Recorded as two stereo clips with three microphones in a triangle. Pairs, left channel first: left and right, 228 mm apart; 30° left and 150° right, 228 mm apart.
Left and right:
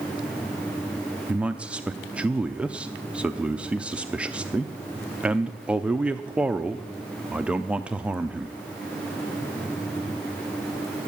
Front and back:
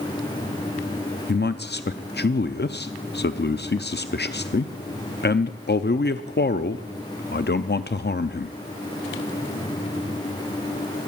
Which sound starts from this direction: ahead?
A man speaking, at 1.3 s.